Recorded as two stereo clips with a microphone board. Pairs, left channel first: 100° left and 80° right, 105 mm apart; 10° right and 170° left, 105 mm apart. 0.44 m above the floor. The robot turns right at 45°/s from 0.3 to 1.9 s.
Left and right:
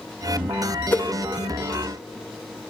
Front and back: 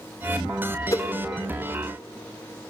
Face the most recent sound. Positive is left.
turn(degrees=80)